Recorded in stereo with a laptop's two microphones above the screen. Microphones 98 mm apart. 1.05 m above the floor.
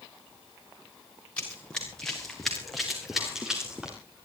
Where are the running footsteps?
10° left (ahead or behind), 5 m; by 4.0 s 10° right (ahead or behind), 6 m.